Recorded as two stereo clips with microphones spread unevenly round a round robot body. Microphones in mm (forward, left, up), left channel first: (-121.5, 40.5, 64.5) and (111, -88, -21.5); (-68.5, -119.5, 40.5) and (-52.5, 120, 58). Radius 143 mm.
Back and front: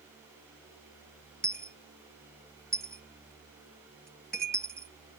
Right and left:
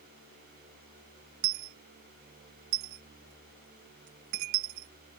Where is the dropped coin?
60° left.